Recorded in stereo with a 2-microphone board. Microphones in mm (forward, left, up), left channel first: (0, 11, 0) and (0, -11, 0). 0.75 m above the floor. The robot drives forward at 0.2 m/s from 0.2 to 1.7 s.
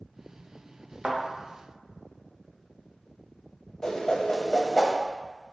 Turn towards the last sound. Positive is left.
turn(degrees=25)  # may be behind; listen again after turning